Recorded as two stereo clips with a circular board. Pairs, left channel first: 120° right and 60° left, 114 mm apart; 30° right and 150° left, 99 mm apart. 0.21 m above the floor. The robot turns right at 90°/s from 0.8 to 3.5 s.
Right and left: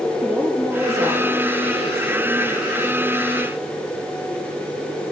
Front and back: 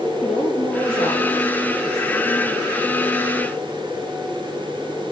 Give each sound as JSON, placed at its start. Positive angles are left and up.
{"t": 0.2, "sound": "a woman speaking", "azimuth_deg": -15, "distance_m": 5.0}